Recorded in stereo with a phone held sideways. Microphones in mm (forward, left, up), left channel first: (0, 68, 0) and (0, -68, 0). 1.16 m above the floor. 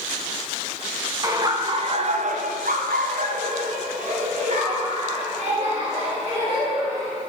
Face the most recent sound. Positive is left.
turn(degrees=-40)  # may be behind; listen again after turning